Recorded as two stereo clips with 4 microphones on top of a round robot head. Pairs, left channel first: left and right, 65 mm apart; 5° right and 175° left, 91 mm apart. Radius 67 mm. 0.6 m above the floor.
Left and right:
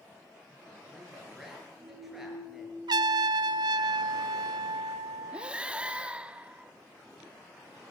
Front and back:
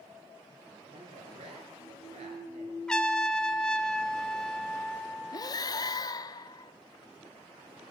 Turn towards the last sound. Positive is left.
turn(degrees=-20)